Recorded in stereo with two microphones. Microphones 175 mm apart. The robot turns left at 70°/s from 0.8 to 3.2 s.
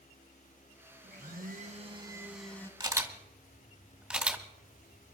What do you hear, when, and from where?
1.0 s a blender: 80° right, 1.5 m; by 2.7 s 160° left, 1.5 m
2.8 s a camera shutter: 25° right (ahead or behind), 2 m; by 5.1 s 5° right (ahead or behind), 2 m